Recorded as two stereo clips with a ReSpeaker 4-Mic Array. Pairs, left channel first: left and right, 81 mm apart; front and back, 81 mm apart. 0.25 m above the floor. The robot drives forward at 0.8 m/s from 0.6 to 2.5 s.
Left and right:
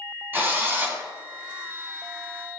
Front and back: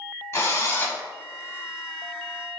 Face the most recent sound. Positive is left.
turn(degrees=-135)